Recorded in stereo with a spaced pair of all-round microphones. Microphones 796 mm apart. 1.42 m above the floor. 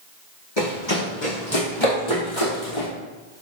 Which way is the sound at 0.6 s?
30° left (ahead or behind).